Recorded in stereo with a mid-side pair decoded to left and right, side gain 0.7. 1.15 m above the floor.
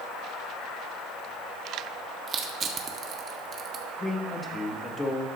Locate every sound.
2.3 s crushing: 35° right, 1.3 m
4.0 s a man speaking: 10° left, 2 m